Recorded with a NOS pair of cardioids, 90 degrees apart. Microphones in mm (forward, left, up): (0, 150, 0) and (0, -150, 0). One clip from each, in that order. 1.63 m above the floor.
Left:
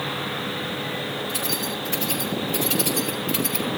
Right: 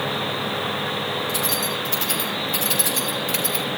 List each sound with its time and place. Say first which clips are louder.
1.3 s keys jangling: right 3 dB; 50° right, 7 m; by 3.7 s 25° right, 6.5 m